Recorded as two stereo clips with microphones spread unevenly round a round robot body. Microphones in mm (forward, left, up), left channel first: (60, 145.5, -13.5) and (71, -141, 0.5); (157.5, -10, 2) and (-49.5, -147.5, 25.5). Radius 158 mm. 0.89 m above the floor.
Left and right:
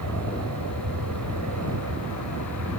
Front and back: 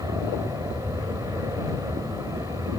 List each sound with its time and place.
0.0 s an aircraft: 70° right